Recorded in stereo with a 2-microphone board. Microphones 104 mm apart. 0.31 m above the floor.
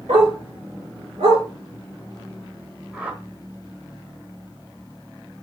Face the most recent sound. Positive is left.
turn(degrees=-15)  # may be behind; listen again after turning